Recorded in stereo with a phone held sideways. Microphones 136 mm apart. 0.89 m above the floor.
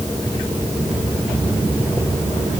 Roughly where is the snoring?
I don't hear snoring.